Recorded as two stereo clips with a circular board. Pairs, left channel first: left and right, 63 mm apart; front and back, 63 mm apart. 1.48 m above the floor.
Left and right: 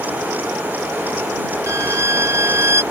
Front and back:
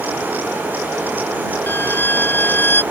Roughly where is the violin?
Ahead right.